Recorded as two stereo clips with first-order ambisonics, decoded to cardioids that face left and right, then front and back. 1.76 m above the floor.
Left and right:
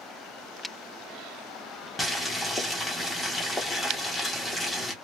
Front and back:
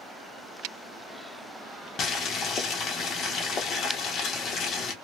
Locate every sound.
2.0 s boiling: 15° left, 1.0 m